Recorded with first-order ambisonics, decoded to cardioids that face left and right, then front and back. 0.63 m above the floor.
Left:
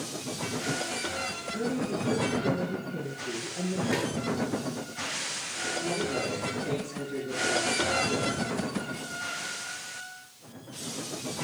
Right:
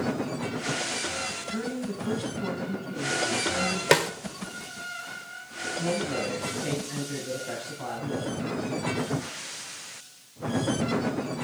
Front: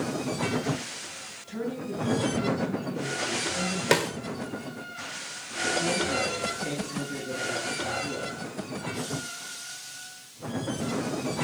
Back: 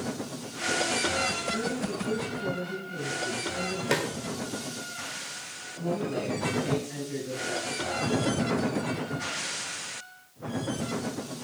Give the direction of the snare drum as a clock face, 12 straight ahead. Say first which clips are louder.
Right 10 dB, front 4 dB; 2 o'clock.